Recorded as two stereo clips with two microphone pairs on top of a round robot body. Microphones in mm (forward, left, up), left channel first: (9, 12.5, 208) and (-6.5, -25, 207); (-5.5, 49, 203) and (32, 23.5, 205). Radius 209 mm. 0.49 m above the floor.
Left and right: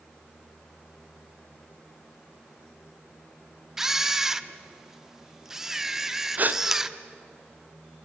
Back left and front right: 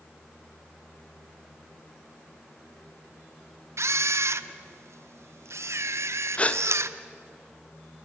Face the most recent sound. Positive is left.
turn(degrees=-155)